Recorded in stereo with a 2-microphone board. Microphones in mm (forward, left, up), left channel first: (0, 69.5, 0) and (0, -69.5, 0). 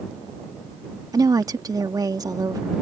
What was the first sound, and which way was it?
A woman speaking, 25° right (ahead or behind).